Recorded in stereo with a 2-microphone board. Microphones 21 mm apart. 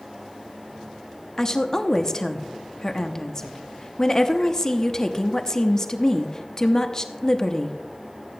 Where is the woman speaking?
20° left (ahead or behind), 0.7 m.